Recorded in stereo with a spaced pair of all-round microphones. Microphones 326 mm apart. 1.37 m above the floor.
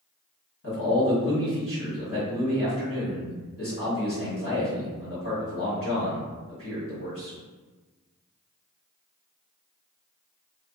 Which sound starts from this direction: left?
A man speaking, at 0.6 s.